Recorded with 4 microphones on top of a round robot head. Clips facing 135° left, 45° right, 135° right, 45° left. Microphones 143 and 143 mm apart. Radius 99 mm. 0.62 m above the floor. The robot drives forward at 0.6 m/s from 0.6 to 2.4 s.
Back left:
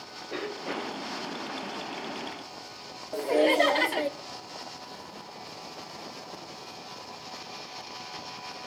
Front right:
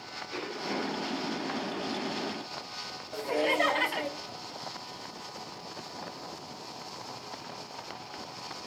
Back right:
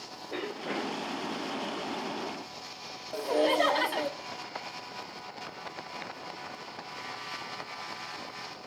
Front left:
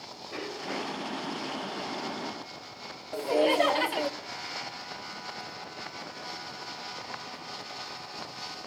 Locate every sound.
0.3 s a cough: 170° left, 3.5 m
3.1 s laughter: 120° left, 0.6 m